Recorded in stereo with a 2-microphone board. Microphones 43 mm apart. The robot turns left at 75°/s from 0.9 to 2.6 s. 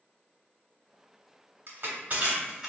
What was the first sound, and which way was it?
Crushing, 60° right (ahead or behind).